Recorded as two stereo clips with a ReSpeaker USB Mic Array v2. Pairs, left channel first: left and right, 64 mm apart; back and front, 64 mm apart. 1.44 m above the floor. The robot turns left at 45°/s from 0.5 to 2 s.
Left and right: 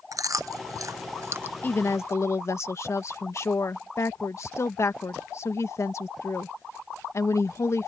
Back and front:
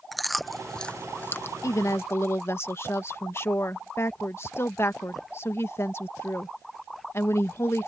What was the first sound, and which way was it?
Chewing, 90° right.